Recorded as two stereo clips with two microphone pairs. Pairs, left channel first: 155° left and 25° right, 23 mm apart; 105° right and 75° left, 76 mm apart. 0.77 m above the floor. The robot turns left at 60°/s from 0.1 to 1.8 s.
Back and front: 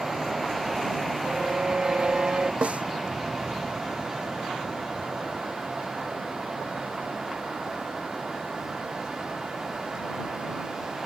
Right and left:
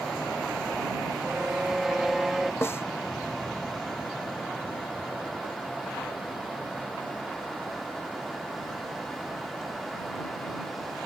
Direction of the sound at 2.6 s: 45° right.